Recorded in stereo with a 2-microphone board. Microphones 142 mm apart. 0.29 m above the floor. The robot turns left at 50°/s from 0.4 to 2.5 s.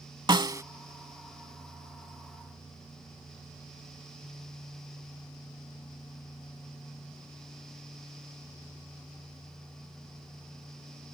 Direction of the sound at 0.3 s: 35° right (ahead or behind).